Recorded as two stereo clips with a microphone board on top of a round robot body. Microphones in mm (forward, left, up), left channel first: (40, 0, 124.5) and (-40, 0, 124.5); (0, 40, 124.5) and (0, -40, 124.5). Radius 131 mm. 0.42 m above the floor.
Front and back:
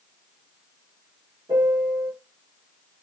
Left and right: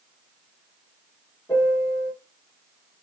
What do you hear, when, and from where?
1.5 s a piano: 155° left, 2.5 m